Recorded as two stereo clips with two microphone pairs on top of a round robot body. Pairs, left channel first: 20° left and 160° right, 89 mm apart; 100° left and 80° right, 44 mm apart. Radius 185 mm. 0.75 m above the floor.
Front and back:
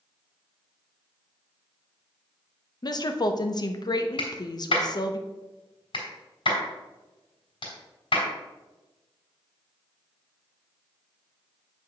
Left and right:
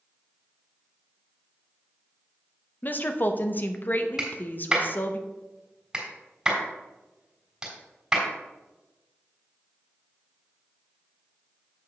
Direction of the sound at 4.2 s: 5° right.